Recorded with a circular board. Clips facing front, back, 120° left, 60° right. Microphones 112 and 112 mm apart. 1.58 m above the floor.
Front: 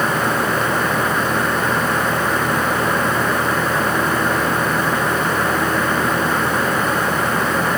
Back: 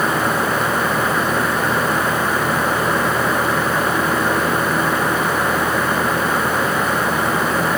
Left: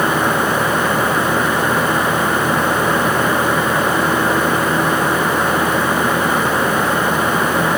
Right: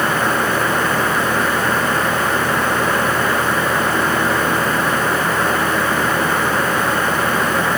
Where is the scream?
No scream in this recording.